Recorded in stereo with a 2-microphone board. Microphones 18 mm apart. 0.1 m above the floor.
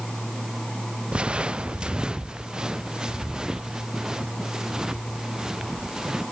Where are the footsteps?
85° right; by 6.2 s 35° right (ahead or behind).